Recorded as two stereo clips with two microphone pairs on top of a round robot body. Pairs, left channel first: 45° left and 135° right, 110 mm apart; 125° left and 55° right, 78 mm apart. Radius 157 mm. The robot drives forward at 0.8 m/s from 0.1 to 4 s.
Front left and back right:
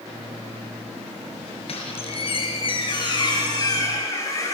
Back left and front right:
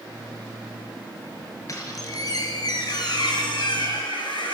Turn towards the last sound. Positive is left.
turn(degrees=105)